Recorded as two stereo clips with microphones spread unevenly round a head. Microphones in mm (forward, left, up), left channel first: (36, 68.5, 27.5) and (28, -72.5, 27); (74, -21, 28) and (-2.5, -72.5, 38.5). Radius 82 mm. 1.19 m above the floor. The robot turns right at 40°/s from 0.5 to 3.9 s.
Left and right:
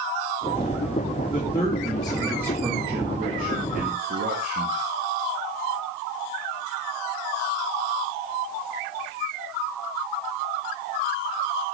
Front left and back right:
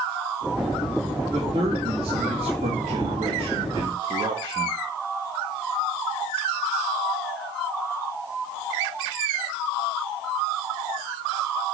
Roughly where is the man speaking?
Behind left.